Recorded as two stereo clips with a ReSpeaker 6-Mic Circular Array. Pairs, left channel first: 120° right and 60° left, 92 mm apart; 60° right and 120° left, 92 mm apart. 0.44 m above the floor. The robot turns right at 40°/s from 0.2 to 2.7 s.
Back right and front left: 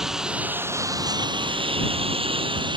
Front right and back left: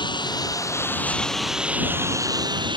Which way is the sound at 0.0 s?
25° right.